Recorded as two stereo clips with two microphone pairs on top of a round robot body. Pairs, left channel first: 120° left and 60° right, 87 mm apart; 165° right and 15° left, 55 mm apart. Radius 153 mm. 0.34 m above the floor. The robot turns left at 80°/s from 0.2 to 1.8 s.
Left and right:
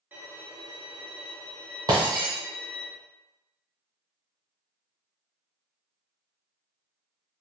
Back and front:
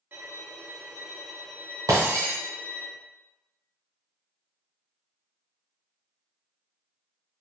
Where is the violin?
5° left, 1.1 m; by 2.9 s 125° right, 1.1 m.